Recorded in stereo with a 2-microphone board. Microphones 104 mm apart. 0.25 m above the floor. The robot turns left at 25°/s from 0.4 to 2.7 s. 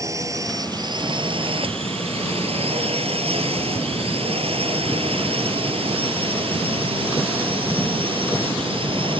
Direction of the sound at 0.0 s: 30° right (ahead or behind).